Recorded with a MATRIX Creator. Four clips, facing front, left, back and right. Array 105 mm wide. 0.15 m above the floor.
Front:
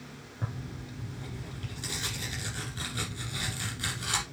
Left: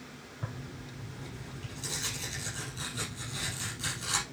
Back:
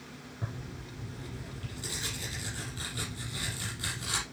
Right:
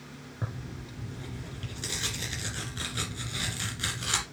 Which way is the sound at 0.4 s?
65° right.